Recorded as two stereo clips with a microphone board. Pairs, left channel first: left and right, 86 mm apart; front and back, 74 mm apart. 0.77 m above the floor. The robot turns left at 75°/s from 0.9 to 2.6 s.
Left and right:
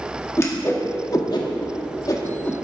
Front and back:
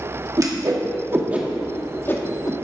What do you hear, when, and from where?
0.4 s a whoosh: 145° left, 1.4 m; by 2.5 s 20° left, 1.4 m